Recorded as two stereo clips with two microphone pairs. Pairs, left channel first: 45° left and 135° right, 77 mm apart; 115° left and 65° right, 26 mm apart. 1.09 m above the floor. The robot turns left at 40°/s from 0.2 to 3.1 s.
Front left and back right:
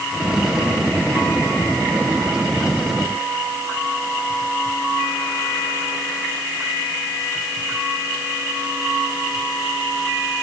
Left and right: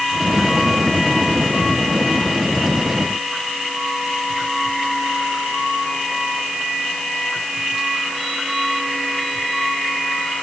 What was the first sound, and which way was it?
Only background noise.